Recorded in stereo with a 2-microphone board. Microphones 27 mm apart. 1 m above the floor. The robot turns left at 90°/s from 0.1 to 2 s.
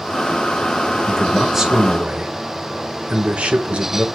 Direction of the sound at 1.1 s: 30° left.